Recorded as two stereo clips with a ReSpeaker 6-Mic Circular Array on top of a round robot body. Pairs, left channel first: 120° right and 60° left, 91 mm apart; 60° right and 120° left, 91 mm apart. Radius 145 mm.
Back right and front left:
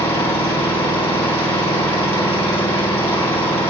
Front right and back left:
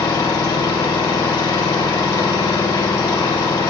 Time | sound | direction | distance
0.0 | an engine running | 105° right | 1.7 m